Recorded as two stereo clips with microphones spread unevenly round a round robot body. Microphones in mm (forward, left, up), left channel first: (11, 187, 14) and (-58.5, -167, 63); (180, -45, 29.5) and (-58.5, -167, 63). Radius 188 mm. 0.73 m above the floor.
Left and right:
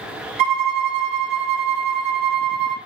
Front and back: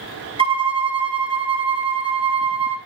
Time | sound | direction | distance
0.4 | a violin | 80° right | 1.7 m